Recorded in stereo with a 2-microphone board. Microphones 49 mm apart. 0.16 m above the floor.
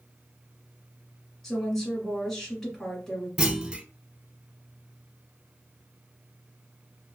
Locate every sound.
1.4 s a woman speaking: 5° left (ahead or behind), 1.7 m
3.4 s a clunk: 20° right (ahead or behind), 0.5 m